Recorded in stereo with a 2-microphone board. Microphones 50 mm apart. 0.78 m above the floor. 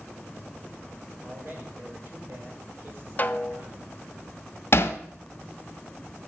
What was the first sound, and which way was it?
A man speaking, 45° right (ahead or behind).